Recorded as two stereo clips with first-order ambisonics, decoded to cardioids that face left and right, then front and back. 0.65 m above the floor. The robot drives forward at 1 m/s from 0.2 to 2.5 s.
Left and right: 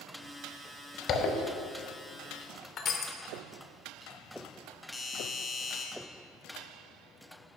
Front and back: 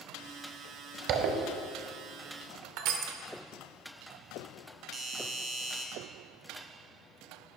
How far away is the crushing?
About 0.9 m.